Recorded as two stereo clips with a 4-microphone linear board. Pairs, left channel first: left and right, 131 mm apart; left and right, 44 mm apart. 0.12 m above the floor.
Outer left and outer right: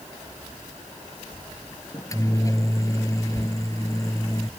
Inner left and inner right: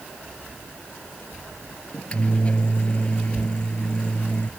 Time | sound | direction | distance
1.9 | a microwave | 25° left (ahead or behind) | ?